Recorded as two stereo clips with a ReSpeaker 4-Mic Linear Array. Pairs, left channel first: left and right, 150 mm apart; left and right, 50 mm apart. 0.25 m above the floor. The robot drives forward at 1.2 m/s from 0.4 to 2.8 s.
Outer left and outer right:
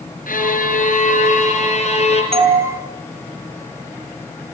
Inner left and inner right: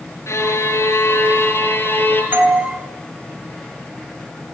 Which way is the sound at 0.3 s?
65° left (ahead or behind).